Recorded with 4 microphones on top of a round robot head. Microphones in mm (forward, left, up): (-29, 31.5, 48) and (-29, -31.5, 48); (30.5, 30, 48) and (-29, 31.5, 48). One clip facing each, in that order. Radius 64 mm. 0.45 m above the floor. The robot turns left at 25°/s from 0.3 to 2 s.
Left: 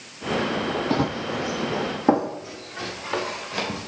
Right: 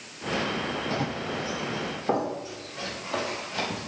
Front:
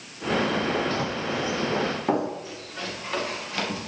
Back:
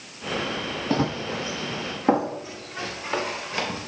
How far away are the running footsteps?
About 0.8 m.